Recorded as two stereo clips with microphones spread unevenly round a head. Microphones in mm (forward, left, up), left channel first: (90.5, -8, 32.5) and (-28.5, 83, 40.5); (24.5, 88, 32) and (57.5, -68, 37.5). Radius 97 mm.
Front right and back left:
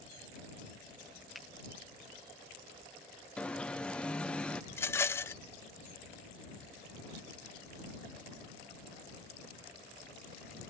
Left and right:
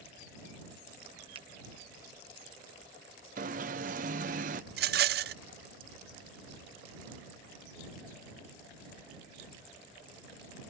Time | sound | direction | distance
1.4 | a finger snap | 130° right | ?
3.4 | an alarm | 120° right | ?
4.7 | a rattle | 115° right | ?